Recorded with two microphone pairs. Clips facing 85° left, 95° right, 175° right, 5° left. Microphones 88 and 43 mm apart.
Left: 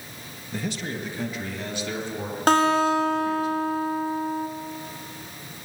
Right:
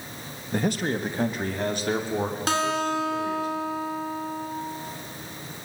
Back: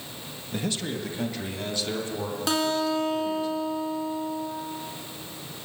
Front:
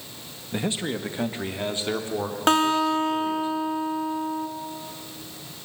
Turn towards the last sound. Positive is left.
turn(degrees=50)